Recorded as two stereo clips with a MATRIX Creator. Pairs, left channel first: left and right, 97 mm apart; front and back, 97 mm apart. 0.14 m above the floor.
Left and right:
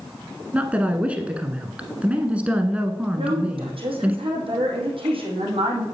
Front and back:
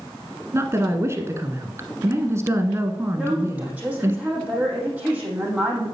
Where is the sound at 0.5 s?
155° right, 1.2 m.